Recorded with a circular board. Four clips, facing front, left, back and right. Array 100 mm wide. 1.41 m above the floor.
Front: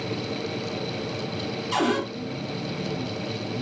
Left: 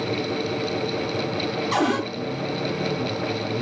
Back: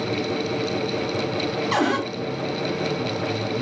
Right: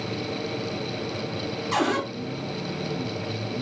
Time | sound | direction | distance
1.7 | a cupboard door | 175° left | 2.5 m